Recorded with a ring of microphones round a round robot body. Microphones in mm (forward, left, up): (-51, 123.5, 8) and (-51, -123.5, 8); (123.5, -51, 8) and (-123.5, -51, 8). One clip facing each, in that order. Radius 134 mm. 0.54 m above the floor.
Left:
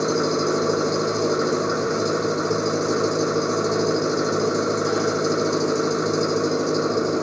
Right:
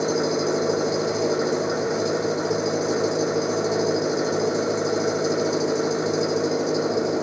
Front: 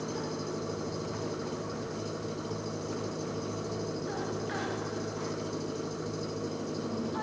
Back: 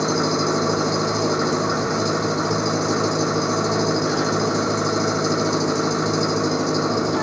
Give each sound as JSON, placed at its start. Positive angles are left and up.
{"t": 0.0, "sound": "an engine running", "azimuth_deg": 170}